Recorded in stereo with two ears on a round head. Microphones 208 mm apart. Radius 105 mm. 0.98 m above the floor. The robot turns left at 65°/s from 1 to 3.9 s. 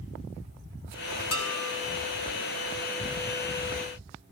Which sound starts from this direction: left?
Dishes clattering, at 1.3 s.